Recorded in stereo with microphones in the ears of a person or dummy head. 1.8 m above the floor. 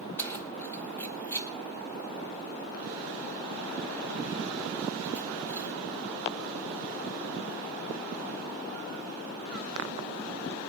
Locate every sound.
0.2 s keys jangling: 15° left (ahead or behind), 1.0 m